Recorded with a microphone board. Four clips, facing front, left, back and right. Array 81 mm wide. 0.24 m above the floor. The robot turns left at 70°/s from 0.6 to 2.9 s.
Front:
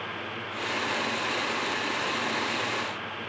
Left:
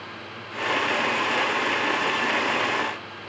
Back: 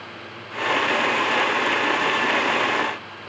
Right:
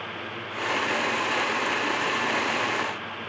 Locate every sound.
Only background noise.